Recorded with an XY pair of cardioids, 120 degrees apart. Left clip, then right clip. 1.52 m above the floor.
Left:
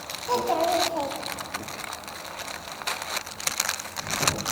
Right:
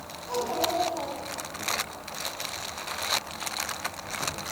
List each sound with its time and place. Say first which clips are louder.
0.3 s a child speaking: left 5 dB; 65° left, 2.5 m; by 1.6 s 30° left, 1.9 m